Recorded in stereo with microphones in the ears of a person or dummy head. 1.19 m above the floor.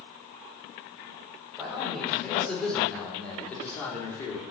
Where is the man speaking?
10° left (ahead or behind), 5 m; by 4.4 s 20° left (ahead or behind), 3.5 m.